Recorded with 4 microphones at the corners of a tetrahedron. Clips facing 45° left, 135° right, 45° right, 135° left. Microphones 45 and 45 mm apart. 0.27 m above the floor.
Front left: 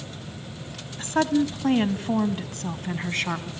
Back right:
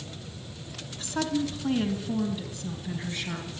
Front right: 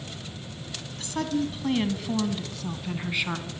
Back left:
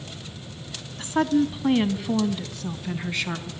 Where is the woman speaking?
80° left, 2 m; by 3.5 s 30° left, 2.5 m.